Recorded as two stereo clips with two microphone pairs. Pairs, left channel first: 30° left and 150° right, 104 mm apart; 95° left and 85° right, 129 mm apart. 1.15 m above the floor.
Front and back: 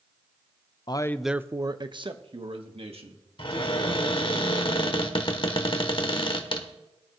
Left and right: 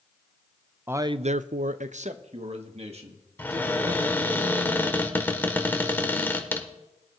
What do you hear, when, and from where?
0.9 s a man speaking: 15° right, 0.5 m; by 4.4 s 130° right, 3 m
3.4 s a cupboard door: 20° left, 1.2 m